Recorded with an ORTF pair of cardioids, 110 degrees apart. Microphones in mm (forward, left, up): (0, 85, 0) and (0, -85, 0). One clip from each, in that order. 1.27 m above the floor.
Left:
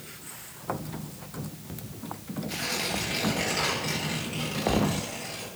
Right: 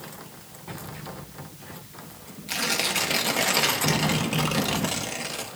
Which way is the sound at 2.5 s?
55° right.